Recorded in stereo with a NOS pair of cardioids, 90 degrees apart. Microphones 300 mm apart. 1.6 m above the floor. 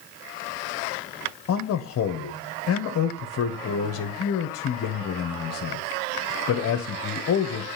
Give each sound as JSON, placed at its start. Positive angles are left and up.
{"t": 1.5, "sound": "a man speaking", "azimuth_deg": 55, "distance_m": 1.2}